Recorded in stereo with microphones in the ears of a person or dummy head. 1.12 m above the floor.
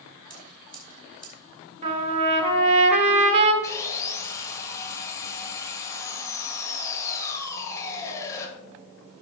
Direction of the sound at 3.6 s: 20° left (ahead or behind).